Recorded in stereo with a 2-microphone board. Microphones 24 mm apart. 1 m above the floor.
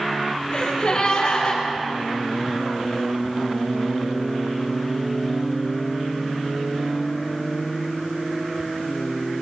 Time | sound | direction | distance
0.5 | a gasp | 45° left (ahead or behind) | 5 m